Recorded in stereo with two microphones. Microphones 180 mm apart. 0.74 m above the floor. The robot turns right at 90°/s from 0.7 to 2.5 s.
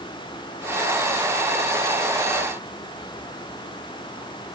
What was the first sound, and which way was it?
Only background noise.